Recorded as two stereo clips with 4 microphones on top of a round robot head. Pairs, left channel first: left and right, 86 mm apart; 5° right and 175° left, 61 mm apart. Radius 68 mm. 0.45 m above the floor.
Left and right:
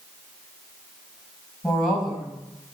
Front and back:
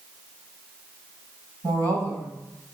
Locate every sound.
1.6 s a woman speaking: straight behind, 3.5 m